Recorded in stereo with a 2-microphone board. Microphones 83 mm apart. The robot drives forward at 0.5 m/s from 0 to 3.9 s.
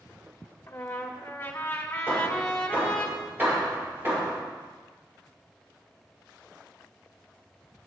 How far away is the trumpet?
About 1.4 m.